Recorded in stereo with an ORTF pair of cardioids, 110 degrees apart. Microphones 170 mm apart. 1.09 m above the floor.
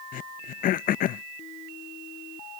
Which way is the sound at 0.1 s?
55° left.